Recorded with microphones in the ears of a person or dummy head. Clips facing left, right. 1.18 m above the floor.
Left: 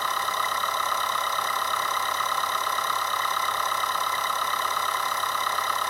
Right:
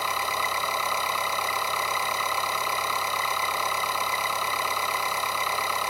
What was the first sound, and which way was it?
An engine running, 15° right (ahead or behind).